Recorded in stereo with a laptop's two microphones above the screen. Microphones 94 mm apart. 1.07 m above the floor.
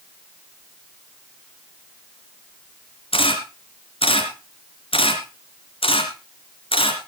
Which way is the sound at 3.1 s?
75° left (ahead or behind).